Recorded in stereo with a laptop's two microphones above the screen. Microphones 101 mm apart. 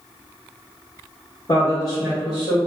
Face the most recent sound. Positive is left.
turn(degrees=60)  # may be behind; listen again after turning